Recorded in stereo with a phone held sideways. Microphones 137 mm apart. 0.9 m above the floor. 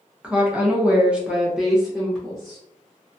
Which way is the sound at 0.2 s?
10° right (ahead or behind).